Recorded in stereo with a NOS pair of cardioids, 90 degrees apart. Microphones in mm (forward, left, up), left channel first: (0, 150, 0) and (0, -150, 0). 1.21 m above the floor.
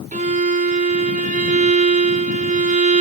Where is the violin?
25° right, 1.9 m.